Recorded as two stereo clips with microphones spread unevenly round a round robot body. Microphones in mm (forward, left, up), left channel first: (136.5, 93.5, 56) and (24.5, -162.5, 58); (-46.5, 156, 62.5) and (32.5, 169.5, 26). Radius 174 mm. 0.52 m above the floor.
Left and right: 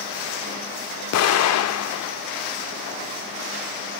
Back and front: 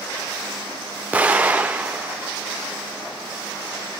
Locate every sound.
1.1 s an explosion: 60° left, 1.4 m